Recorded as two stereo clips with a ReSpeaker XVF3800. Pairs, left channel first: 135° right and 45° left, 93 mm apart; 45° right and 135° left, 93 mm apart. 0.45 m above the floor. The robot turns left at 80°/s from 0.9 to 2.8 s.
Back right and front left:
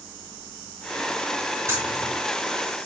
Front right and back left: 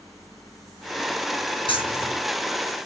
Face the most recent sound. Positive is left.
turn(degrees=-105)